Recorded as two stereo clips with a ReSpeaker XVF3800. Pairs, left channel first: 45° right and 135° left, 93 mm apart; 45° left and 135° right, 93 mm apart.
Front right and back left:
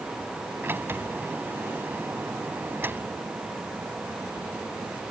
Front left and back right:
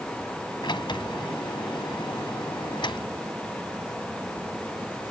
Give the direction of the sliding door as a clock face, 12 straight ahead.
10 o'clock.